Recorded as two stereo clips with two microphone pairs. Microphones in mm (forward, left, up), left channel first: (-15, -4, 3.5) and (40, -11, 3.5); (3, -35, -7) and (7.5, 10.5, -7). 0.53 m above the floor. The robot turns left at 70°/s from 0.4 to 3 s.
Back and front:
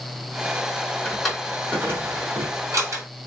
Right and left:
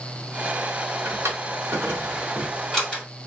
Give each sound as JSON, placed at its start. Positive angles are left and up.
{"t": 1.1, "sound": "a drawer", "azimuth_deg": 100, "distance_m": 2.0}